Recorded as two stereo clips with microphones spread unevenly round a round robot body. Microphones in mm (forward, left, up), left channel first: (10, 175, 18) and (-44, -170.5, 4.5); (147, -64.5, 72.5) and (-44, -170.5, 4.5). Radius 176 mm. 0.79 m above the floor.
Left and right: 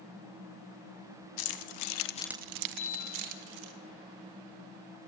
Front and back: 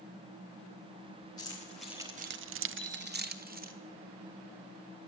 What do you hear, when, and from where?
1.4 s keys jangling: 110° left, 1.5 m; by 3.7 s 100° right, 2 m
2.7 s a bicycle bell: 125° left, 2 m